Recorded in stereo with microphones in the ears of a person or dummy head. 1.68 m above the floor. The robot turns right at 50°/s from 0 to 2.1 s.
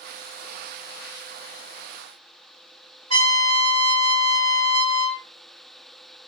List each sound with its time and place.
3.1 s a trumpet: 85° right, 1.8 m